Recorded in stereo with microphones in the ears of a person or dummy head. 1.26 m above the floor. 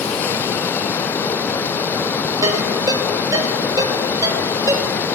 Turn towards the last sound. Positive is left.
turn(degrees=-20)  # may be behind; listen again after turning